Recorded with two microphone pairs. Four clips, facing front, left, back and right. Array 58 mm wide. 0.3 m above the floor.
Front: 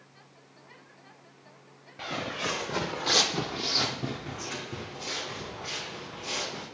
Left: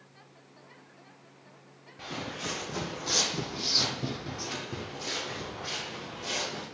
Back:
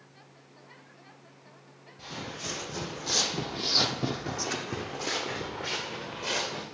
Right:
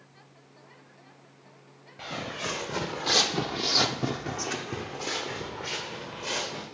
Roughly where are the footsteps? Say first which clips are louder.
Right 3 dB, front 7 dB; ahead.